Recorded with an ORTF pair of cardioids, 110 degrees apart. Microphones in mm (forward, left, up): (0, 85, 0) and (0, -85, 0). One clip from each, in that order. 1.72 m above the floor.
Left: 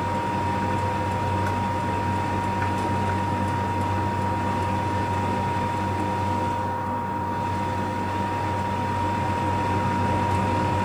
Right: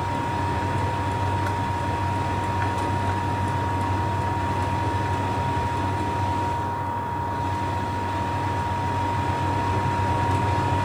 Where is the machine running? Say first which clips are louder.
Left 1 dB; 10° right, 0.7 m.